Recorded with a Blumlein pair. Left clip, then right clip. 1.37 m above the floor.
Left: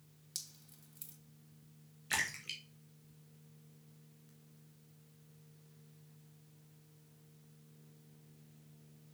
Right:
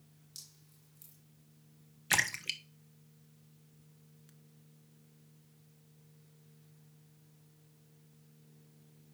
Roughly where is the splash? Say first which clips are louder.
Right 6 dB; ahead right.